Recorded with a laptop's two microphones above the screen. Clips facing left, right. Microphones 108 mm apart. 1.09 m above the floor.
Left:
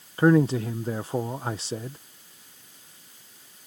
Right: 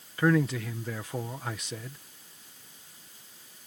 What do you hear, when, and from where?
0.2 s a man speaking: 30° left (ahead or behind)